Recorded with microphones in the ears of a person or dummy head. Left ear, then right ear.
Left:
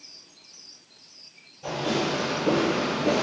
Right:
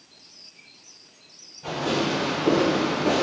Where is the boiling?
No boiling in this recording.